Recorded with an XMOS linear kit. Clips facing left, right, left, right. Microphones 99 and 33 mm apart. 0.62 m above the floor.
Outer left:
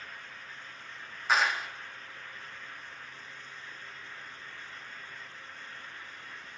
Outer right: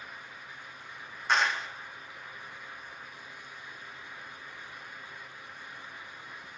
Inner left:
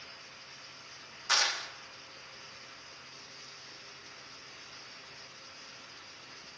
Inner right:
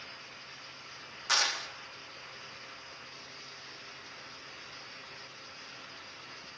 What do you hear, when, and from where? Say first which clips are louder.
1.3 s a clap: even, even; centre (ahead or behind), 0.6 m